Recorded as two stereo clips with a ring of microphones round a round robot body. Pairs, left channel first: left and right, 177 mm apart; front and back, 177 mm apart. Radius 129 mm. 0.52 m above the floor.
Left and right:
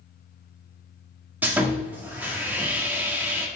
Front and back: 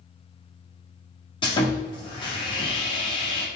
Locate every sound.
1.4 s sawing: 20° right, 1.0 m